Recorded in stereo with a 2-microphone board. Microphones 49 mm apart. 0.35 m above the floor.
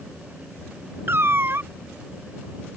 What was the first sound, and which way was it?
A cat meowing, 55° right (ahead or behind).